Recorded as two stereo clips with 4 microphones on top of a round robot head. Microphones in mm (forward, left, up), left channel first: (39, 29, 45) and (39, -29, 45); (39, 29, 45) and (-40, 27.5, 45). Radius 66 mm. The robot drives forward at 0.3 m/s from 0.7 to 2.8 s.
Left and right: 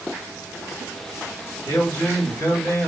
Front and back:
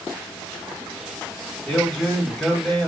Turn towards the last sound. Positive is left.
turn(degrees=90)